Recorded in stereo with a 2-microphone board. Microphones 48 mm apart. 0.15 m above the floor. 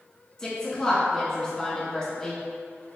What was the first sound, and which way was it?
A woman speaking, 10° left (ahead or behind).